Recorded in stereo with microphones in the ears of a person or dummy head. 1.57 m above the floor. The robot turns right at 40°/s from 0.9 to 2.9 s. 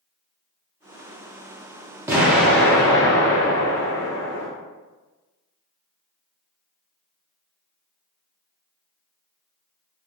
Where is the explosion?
20° right, 0.6 m; by 4.5 s 15° left, 0.6 m.